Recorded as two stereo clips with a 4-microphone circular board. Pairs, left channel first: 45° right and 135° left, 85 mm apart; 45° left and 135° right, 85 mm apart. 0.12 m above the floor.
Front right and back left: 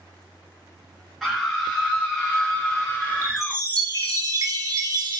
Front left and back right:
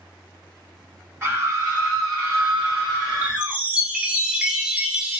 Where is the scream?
130° right, 1.1 m; by 3.6 s 120° right, 2.5 m.